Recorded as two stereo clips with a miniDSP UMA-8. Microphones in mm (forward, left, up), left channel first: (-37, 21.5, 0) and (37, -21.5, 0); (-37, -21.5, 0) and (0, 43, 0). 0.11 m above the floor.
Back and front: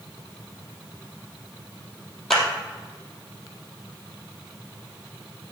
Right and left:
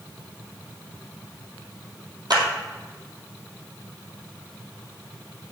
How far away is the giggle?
No giggle in this recording.